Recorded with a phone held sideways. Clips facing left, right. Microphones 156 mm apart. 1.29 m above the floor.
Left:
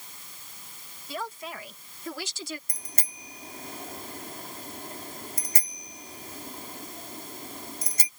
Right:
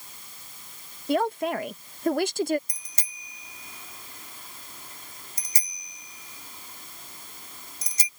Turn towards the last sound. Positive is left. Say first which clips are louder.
# left 6 dB
turn(degrees=55)  # may be behind; listen again after turning